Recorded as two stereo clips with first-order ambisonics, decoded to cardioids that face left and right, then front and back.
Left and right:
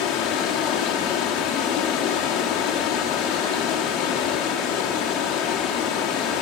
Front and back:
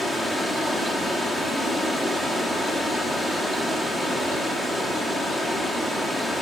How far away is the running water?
About 1.8 m.